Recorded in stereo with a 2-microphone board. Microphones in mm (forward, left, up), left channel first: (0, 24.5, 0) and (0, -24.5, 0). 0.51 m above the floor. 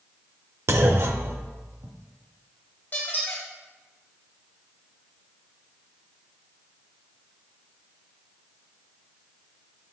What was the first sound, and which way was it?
A clunk, 60° right (ahead or behind).